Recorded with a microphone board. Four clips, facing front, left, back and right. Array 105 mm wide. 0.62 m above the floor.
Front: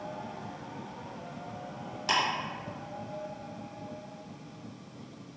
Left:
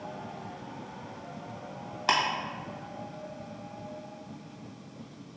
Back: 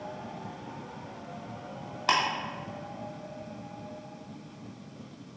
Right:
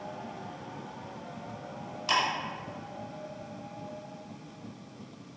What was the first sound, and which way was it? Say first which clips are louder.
Ticking: left 2 dB, back 3 dB; 130° left.